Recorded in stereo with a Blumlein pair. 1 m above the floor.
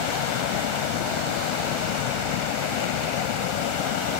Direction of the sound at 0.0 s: 45° left.